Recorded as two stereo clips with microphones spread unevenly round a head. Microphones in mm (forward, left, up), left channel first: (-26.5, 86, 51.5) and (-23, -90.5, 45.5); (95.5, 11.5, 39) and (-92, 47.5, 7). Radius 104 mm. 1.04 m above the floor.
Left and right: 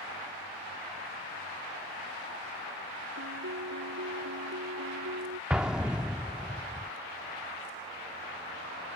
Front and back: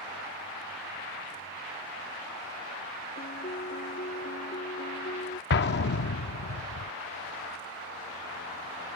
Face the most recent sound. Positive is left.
turn(degrees=0)